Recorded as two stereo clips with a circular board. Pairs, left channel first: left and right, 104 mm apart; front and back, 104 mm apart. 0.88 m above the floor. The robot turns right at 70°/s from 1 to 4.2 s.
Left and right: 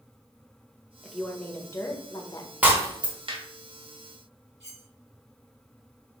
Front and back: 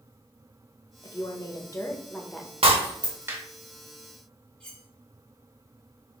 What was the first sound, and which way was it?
A woman speaking, 10° right.